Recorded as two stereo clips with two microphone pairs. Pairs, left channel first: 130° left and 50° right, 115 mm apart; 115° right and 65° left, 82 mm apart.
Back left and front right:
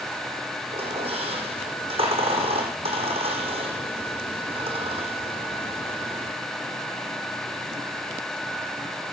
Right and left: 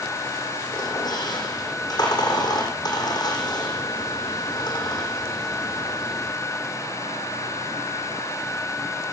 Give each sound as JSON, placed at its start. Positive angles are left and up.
{"t": 0.7, "sound": "a squeak", "azimuth_deg": -85, "distance_m": 9.5}